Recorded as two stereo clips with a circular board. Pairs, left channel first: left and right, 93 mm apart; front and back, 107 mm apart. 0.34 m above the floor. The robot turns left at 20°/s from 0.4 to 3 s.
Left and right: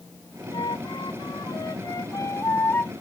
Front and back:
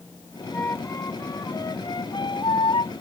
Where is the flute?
70° left; by 2.9 s 25° left.